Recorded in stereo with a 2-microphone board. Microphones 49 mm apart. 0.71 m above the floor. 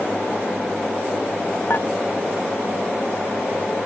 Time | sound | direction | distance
1.7 | dishes clattering | 50° left (ahead or behind) | ?